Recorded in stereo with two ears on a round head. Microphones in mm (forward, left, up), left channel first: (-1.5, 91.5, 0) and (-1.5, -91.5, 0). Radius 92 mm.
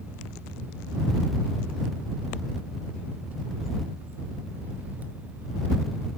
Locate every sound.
Only background noise.